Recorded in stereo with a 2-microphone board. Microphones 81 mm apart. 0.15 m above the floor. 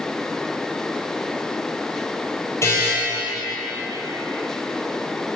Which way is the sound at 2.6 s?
35° left (ahead or behind).